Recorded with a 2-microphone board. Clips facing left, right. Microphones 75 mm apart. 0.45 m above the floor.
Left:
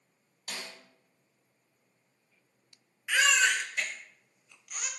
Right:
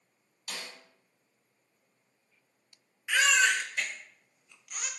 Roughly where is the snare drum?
Left.